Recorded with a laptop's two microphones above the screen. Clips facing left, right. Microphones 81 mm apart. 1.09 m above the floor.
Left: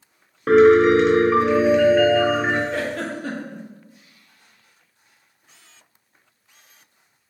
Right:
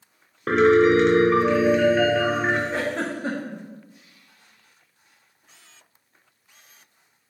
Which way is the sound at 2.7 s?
25° right (ahead or behind).